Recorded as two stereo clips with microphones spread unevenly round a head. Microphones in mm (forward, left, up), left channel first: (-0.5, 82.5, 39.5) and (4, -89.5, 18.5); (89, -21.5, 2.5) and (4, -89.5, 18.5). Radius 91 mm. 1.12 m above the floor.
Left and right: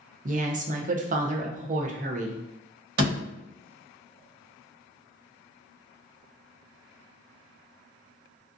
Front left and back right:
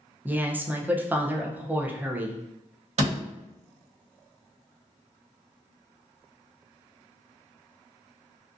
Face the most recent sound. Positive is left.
turn(degrees=-125)